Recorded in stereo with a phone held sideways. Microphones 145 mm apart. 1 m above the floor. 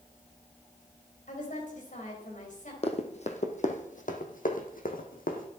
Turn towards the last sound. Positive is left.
turn(degrees=65)  # may be behind; listen again after turning